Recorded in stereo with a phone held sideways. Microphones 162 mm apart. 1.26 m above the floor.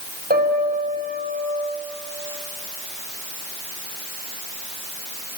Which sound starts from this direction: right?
A piano, at 0.3 s.